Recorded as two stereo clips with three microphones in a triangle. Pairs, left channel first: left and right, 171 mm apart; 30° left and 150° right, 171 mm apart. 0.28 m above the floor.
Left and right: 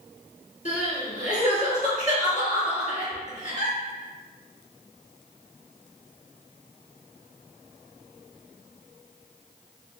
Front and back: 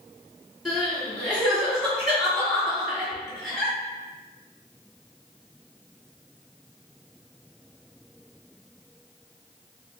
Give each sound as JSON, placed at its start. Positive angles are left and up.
{"t": 0.7, "sound": "crying", "azimuth_deg": 120, "distance_m": 2.0}